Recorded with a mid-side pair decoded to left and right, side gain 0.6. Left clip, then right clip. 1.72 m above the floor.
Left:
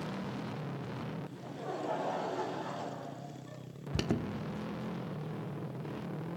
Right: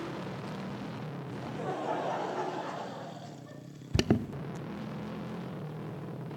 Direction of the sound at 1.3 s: 30° right.